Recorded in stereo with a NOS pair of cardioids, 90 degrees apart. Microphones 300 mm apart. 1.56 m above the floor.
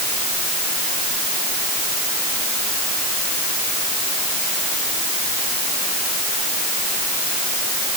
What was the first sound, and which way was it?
Only background noise.